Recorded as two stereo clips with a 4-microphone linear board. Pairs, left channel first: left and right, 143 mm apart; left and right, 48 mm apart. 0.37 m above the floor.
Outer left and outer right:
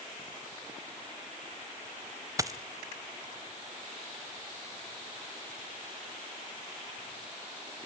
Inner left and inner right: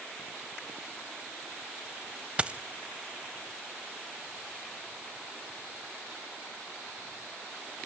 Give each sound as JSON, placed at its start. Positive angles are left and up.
{"t": 2.4, "sound": "a dropped coin", "side_deg": -25, "distance_m": 0.8}